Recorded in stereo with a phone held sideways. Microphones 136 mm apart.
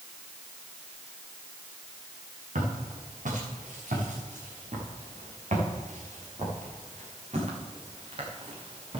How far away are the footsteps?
About 7.5 m.